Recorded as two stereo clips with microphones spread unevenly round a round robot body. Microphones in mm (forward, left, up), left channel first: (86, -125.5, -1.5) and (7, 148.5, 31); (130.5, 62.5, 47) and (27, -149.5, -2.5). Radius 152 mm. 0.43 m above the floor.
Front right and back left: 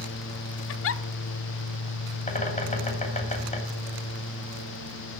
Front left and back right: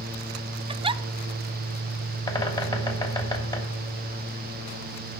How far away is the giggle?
About 0.5 m.